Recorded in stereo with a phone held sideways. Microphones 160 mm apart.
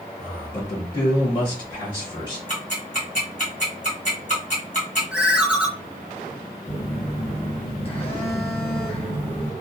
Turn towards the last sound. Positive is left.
turn(degrees=35)  # may be behind; listen again after turning